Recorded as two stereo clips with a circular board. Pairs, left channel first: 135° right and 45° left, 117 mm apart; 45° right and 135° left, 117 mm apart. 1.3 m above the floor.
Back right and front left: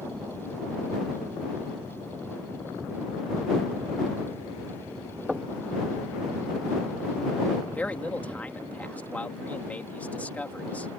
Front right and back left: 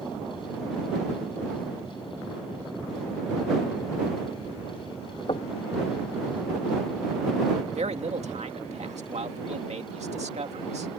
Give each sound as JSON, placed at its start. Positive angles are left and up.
{"t": 5.3, "sound": "knocking", "azimuth_deg": -40}
{"t": 7.7, "sound": "a man speaking", "azimuth_deg": 150}